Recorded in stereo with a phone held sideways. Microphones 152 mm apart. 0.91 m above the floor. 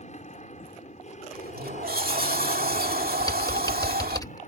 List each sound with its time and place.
0.0 s an aircraft: 50° left (ahead or behind); by 4.5 s 55° left (ahead or behind)
1.3 s a sliding door: 80° right
3.2 s typing on a keyboard: 25° left (ahead or behind)